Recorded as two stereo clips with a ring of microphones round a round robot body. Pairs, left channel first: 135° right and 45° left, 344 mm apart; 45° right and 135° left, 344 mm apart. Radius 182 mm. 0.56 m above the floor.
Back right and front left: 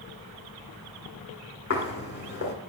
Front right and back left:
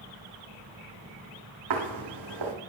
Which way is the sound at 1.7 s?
165° left.